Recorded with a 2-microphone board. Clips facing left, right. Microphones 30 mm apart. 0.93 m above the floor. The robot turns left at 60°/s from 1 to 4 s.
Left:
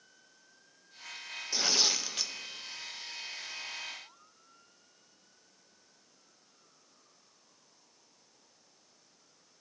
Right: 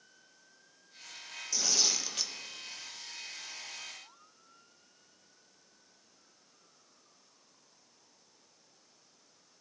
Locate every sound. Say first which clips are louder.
1.5 s tearing paper: left 2 dB; 50° left, 0.6 m; by 2.3 s straight ahead, 0.6 m